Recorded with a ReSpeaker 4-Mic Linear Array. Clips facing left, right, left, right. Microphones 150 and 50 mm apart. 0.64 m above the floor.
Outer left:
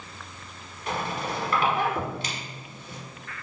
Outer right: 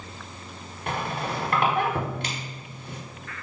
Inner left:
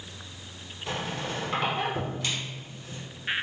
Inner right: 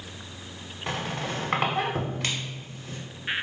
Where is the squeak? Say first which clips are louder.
Outer right 1 dB, inner right 2 dB; 55° right (ahead or behind), 0.8 m.